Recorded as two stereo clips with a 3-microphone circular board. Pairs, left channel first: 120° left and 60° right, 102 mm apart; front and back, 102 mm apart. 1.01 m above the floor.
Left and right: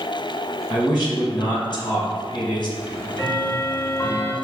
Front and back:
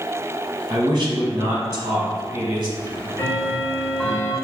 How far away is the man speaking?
About 1.2 m.